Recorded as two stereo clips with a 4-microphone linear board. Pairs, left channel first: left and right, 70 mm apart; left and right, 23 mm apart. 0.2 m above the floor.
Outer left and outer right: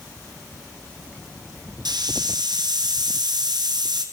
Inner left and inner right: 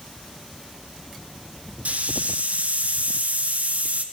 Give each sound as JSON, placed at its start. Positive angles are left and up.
{"t": 1.9, "sound": "a hiss", "side_deg": -85, "distance_m": 1.3}